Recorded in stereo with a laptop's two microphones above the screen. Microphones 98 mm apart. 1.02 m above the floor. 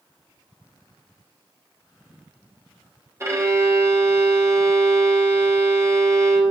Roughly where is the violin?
Right.